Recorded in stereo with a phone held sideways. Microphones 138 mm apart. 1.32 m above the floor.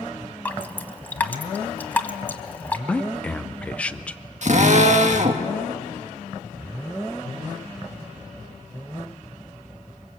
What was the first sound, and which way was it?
Dripping, 10° left (ahead or behind).